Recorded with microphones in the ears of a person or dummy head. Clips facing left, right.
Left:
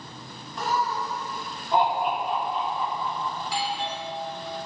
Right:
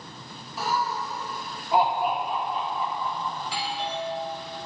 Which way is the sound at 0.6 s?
5° right (ahead or behind).